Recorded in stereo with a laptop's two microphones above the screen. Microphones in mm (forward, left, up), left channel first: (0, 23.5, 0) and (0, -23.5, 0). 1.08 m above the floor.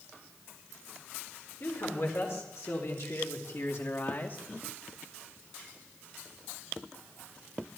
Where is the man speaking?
65° left (ahead or behind), 4 m; by 4.4 s 50° left (ahead or behind), 2.5 m.